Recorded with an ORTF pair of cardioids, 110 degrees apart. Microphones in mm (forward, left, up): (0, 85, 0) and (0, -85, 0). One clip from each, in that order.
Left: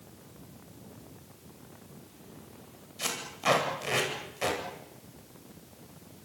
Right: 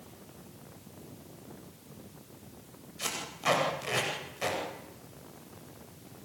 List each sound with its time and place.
3.0 s tape being pulled: 15° left, 9 m